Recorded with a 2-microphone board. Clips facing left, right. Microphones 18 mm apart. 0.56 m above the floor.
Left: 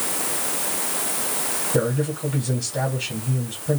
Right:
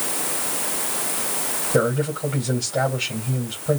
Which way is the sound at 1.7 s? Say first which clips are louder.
Right 3 dB; 45° right (ahead or behind).